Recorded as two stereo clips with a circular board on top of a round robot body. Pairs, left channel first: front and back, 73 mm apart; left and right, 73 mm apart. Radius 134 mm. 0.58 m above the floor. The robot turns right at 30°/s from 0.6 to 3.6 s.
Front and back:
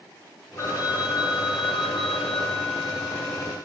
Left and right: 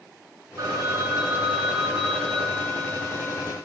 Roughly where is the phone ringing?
Ahead right.